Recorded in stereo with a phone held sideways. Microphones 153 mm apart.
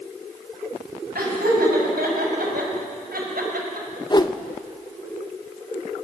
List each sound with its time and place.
1.1 s laughter: 80° right, 7.5 m
4.1 s a whoosh: 30° left (ahead or behind), 0.8 m